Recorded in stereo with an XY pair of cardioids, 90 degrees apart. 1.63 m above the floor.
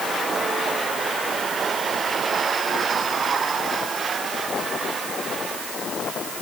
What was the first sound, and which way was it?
Only background noise.